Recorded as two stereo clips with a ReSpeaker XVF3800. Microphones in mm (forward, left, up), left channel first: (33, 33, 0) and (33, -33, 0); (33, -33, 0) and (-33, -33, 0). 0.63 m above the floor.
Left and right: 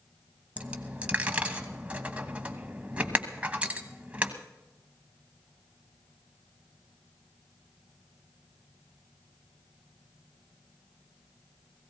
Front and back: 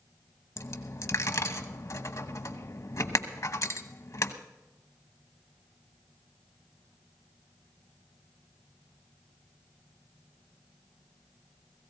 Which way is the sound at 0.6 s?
25° right.